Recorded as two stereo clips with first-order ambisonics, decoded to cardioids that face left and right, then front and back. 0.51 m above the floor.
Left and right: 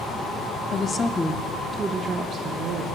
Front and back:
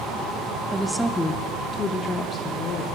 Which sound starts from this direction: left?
A woman speaking, at 0.7 s.